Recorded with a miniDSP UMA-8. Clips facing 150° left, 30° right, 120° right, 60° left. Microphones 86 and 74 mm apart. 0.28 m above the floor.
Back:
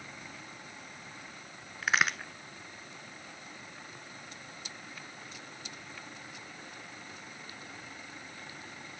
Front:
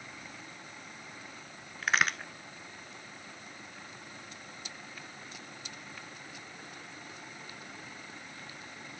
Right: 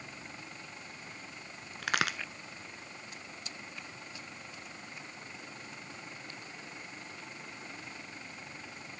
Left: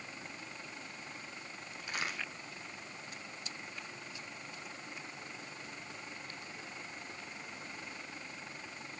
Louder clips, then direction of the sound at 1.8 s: Even, right 8 dB; 120° right.